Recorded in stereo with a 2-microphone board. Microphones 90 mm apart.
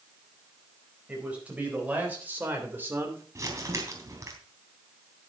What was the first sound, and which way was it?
A man speaking, 15° right (ahead or behind).